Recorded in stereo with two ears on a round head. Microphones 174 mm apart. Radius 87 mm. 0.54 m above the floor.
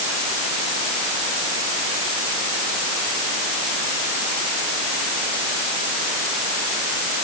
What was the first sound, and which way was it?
Only background noise.